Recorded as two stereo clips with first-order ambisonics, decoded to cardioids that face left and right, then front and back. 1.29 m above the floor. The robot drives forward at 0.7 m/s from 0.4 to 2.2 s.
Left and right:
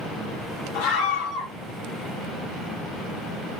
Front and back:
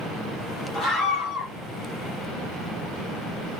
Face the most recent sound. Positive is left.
turn(degrees=110)